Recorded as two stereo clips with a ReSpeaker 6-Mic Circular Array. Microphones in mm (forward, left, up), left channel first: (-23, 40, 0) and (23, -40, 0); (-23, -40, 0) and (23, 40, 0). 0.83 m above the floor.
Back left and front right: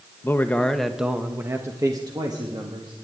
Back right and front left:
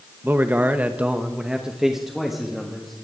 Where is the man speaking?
105° left, 0.8 m; by 2.9 s 30° right, 1.5 m.